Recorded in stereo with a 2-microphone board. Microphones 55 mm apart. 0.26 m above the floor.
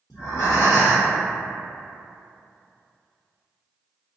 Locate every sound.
0.1 s breathing: 85° left, 0.9 m